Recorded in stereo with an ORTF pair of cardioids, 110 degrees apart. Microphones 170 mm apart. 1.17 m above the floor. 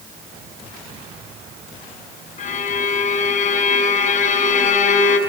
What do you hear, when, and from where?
2.4 s a violin: 45° left, 5.5 m